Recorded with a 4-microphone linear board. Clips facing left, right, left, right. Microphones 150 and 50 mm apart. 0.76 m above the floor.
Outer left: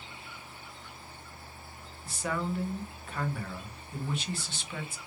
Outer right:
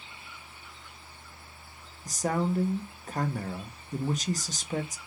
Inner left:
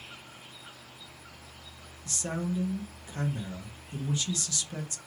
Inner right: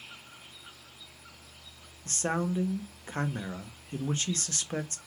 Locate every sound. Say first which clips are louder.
2.0 s a man speaking: outer right 5 dB, inner right 3 dB; 40° right (ahead or behind), 0.5 m